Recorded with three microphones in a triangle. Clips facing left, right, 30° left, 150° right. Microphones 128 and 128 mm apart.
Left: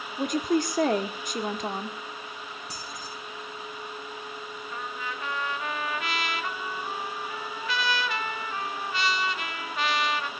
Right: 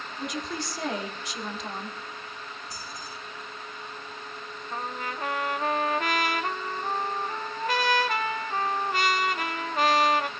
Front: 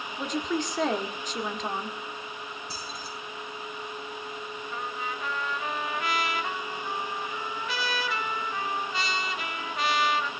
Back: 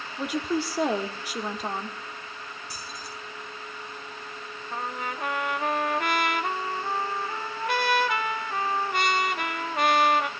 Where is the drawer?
I don't hear a drawer.